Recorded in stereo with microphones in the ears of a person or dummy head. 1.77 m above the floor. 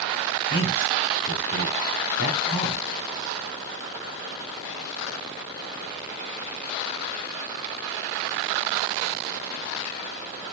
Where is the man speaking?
55° left (ahead or behind), 1.3 m.